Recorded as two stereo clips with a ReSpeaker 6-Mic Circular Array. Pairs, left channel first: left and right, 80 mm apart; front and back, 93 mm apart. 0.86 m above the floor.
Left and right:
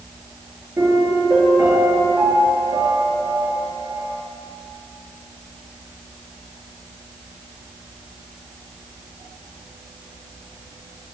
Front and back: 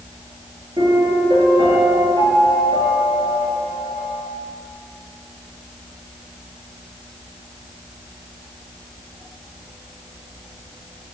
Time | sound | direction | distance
0.8 | a piano | 140° right | 8.5 m